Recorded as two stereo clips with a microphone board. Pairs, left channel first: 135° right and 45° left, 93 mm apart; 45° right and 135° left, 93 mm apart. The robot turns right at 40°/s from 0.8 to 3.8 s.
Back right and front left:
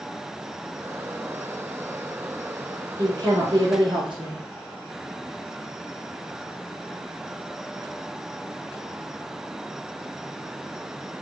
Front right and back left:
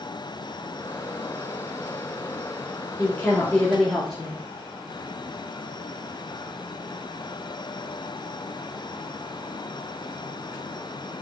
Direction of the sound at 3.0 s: 15° left.